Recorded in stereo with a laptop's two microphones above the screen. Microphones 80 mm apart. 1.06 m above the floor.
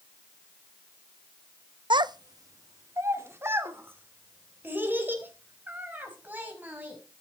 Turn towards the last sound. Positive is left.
turn(degrees=-20)  # may be behind; listen again after turning